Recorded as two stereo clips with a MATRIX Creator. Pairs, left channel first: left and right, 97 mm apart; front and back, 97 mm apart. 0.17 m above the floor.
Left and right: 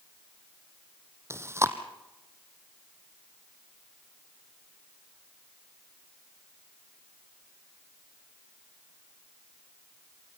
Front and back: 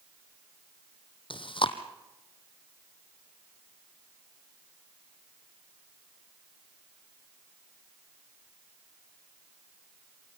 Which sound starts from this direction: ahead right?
Chewing, at 1.3 s.